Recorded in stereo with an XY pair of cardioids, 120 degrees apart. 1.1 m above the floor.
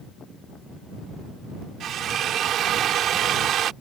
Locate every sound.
1.8 s a drill: 60° right